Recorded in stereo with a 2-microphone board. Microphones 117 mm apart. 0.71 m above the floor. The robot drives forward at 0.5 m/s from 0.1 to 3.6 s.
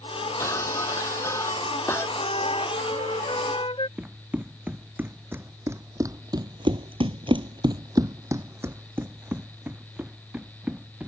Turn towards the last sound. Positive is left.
turn(degrees=-10)  # may be behind; listen again after turning